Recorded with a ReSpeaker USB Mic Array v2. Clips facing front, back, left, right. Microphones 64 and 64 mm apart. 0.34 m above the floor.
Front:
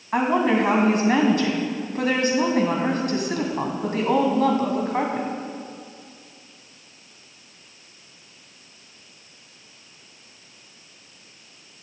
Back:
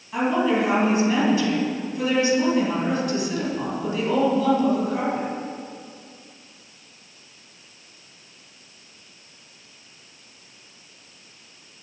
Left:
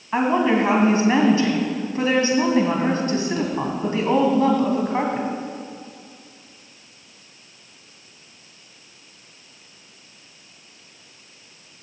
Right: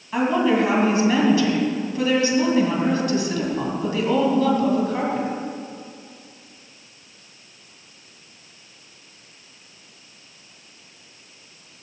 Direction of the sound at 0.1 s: 35° left.